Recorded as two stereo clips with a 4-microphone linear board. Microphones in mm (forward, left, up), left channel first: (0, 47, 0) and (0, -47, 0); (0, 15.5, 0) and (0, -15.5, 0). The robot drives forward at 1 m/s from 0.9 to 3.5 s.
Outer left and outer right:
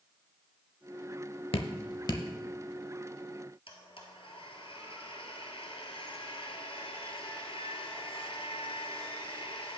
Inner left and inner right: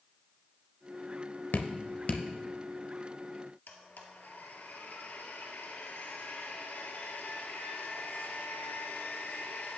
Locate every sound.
1.5 s dripping: 85° left, 0.7 m; by 2.2 s 45° left (ahead or behind), 1.0 m
3.7 s a blender: 75° left (ahead or behind), 1.6 m